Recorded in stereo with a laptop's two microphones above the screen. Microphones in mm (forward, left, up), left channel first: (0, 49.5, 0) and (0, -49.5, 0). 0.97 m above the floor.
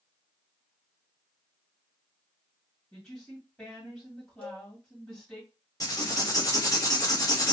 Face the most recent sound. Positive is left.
turn(degrees=35)  # may be behind; listen again after turning